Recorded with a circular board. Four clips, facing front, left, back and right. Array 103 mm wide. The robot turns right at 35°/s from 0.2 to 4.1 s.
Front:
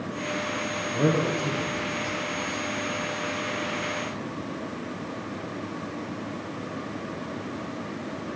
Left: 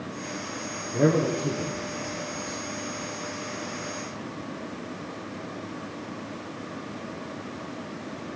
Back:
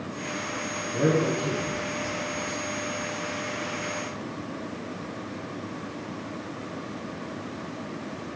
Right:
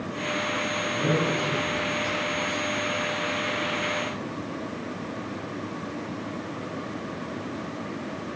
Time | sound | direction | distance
0.9 | a man speaking | 95° left | 3 m